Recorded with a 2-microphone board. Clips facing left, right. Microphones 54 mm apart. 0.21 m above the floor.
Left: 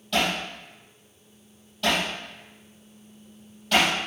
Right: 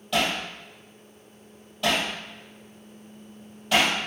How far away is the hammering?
About 4 m.